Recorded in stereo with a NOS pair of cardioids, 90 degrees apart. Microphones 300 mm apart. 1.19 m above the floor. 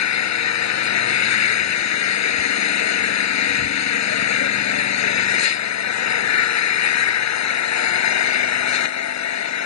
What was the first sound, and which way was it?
An engine running, 65° left.